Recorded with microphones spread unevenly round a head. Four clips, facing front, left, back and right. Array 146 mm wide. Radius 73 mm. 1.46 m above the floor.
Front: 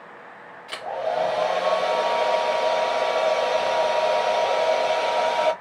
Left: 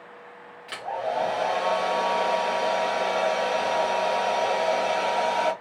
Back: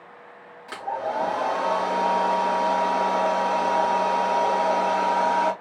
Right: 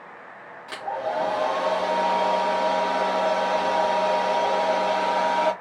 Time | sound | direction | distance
0.7 | a hair dryer | 145° right | 3.5 m